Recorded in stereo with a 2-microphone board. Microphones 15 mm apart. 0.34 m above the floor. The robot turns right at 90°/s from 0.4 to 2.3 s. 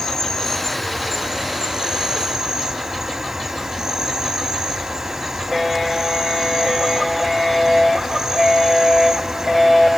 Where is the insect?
130° left, 1.9 m; by 10.0 s 55° right, 1.9 m.